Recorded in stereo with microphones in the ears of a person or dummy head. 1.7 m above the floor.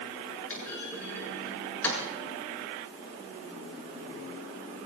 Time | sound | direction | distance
0.5 | a clunk | 10° left (ahead or behind) | 7 m